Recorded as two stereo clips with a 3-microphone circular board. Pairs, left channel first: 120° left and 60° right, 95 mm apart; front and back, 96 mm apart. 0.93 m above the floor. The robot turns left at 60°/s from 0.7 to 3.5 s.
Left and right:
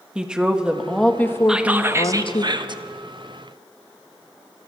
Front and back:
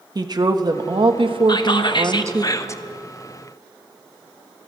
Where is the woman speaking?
140° right, 1.0 m; by 2.5 s 115° left, 1.0 m.